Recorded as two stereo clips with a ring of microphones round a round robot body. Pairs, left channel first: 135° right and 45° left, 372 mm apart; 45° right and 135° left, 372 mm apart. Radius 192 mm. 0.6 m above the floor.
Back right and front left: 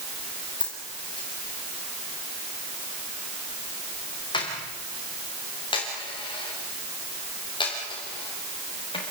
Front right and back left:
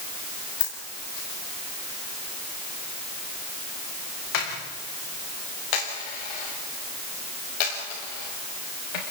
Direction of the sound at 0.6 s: 55° right.